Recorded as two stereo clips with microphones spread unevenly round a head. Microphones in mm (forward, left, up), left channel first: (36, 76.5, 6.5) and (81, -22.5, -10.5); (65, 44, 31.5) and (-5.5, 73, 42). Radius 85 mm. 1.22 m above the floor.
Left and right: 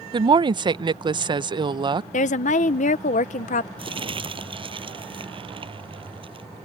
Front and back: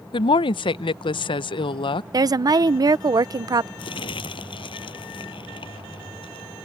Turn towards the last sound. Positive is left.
turn(degrees=-25)